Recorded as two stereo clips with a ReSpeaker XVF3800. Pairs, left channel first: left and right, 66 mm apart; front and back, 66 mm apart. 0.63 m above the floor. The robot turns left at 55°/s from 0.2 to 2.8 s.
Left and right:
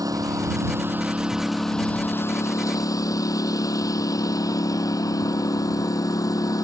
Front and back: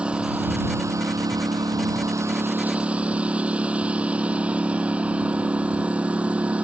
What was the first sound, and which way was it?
A lawn mower, 105° right.